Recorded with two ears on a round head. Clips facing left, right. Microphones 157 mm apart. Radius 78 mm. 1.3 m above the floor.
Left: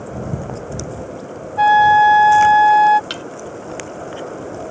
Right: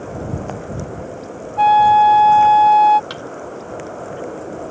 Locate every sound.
1.6 s a flute: 10° left (ahead or behind)
3.1 s a thud: 35° left (ahead or behind)